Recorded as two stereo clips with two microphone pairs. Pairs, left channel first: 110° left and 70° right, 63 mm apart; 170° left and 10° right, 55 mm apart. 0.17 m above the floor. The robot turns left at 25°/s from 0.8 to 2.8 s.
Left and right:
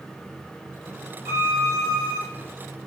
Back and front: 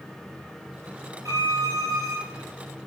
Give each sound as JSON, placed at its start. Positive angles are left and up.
{"t": 1.2, "sound": "a violin", "azimuth_deg": -15, "distance_m": 1.0}